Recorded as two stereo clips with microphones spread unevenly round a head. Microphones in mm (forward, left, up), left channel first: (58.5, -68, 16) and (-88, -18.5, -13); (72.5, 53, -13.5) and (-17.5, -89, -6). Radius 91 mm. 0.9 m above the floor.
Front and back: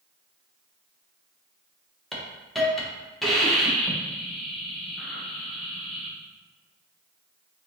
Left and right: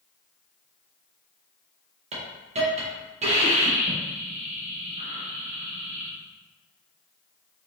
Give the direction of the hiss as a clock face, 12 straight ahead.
4 o'clock.